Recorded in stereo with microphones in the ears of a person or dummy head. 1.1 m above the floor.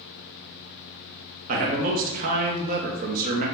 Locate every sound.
1.5 s a man speaking: 40° right (ahead or behind), 0.7 m